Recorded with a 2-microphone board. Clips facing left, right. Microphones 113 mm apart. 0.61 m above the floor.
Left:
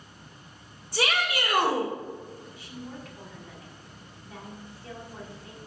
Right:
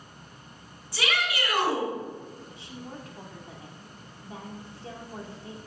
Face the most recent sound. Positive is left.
turn(degrees=-25)  # may be behind; listen again after turning